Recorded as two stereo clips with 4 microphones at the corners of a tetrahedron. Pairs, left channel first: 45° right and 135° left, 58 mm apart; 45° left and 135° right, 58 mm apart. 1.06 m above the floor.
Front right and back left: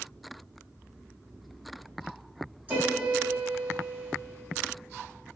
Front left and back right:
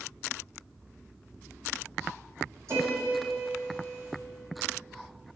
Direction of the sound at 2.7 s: 165° right.